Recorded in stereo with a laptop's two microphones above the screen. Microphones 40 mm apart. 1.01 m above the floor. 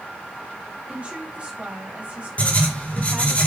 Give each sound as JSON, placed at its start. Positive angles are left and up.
{"t": 0.9, "sound": "a woman speaking", "side_deg": -35, "distance_m": 4.0}
{"t": 2.4, "sound": "writing", "side_deg": 40, "distance_m": 1.8}